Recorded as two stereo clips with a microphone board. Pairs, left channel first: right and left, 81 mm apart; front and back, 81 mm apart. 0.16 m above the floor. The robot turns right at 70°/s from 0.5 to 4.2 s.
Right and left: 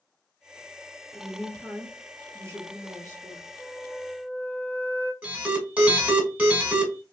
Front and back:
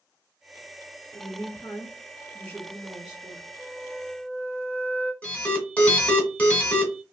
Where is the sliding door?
I don't hear a sliding door.